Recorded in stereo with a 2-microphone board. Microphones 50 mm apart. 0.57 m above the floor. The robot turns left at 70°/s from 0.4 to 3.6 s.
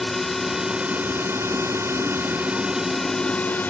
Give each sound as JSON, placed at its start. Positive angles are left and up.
{"t": 0.0, "sound": "a drone", "azimuth_deg": 0}